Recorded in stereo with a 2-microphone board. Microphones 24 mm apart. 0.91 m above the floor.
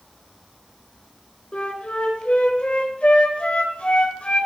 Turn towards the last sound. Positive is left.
turn(degrees=55)  # may be behind; listen again after turning